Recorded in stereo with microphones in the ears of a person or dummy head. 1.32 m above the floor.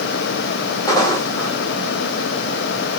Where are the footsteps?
20° left (ahead or behind), 2.5 m.